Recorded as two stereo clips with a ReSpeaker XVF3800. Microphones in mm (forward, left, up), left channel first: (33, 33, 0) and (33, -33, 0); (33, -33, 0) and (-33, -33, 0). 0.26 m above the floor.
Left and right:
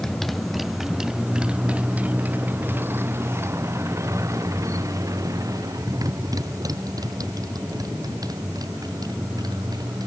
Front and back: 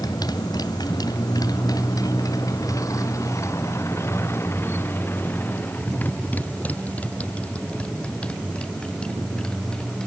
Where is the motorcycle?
5° left; by 10.1 s 80° right.